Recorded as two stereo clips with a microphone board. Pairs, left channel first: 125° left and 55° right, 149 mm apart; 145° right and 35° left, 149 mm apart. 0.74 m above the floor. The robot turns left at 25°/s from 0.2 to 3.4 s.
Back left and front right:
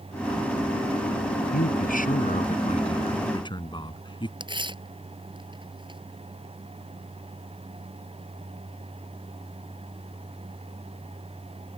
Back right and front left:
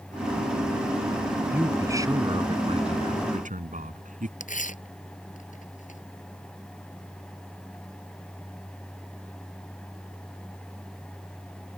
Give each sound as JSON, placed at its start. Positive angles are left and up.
{"t": 1.5, "sound": "a man speaking", "azimuth_deg": 115}
{"t": 4.4, "sound": "tearing paper", "azimuth_deg": -115}